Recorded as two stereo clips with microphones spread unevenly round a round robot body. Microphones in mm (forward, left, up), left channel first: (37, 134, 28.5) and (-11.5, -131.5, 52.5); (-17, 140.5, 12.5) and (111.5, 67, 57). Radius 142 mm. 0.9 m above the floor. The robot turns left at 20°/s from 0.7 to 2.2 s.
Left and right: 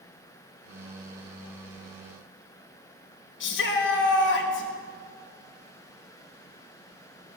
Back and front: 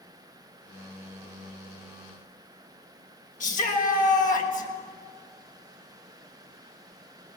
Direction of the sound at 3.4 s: 130° left.